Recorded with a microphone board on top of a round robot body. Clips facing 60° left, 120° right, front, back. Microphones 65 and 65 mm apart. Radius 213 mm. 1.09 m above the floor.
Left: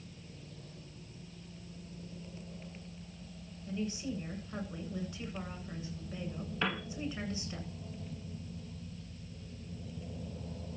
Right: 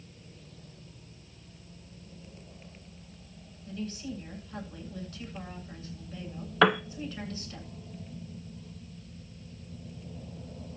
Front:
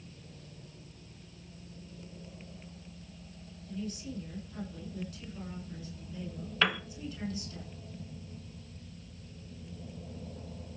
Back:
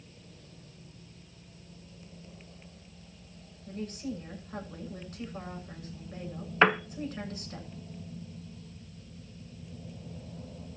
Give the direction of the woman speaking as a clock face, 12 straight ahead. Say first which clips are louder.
Even, back 3 dB; 8 o'clock.